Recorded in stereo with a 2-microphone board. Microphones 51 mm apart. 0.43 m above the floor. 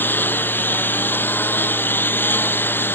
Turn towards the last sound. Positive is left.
turn(degrees=40)  # may be behind; listen again after turning